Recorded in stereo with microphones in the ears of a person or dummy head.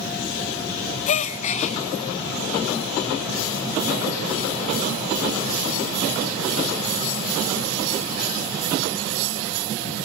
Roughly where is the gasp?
Left.